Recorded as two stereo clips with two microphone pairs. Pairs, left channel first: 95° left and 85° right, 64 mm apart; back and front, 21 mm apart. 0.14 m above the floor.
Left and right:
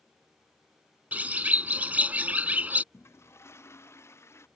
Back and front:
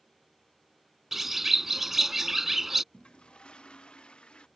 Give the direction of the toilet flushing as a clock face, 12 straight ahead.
7 o'clock.